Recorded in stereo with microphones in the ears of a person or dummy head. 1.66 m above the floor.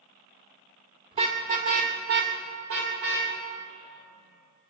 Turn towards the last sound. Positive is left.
turn(degrees=-65)  # may be behind; listen again after turning